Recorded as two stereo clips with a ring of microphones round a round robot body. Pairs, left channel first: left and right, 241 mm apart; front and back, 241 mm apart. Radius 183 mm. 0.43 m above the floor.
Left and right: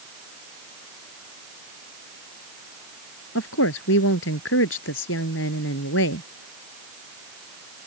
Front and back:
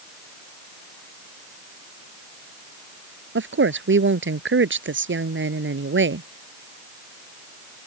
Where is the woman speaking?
140° left.